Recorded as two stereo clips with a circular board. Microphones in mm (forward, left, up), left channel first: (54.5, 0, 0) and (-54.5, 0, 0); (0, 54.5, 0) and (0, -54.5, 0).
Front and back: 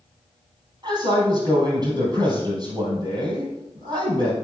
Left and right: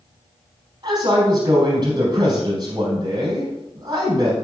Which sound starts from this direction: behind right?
A man speaking, at 0.8 s.